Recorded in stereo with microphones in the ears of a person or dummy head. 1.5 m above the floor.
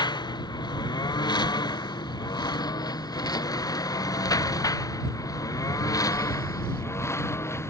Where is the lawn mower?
25° left (ahead or behind); by 7.7 s 20° left (ahead or behind).